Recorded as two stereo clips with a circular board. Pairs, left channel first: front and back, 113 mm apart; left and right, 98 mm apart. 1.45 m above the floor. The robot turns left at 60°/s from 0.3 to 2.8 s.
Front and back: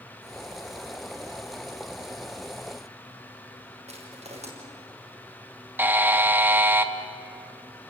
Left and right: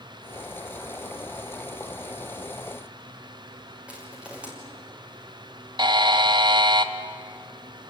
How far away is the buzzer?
About 1.2 m.